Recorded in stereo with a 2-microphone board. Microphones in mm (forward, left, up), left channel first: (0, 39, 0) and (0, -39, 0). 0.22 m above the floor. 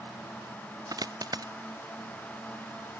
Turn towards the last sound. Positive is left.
turn(degrees=-55)  # may be behind; listen again after turning